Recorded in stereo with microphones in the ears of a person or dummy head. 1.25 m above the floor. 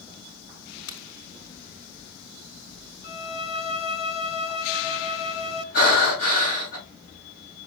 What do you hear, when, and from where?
0.9 s a crack: 80° left, 4 m
3.0 s a violin: 35° left (ahead or behind), 1.0 m
5.7 s breathing: 60° left (ahead or behind), 8 m